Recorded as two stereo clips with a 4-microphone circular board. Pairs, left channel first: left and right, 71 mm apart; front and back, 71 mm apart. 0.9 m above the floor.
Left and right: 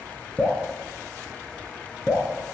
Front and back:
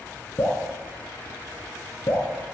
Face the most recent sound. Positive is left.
turn(degrees=-5)